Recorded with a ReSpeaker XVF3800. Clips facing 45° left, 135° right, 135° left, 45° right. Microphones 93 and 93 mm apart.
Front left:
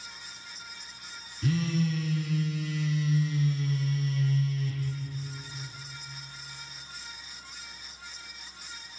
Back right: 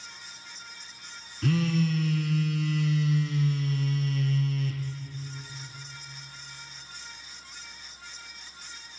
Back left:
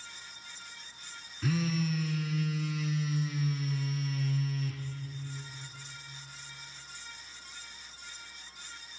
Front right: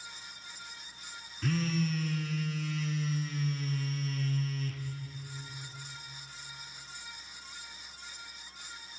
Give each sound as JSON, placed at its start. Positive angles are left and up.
{"t": 1.4, "sound": "a phone buzzing", "azimuth_deg": -140, "distance_m": 1.2}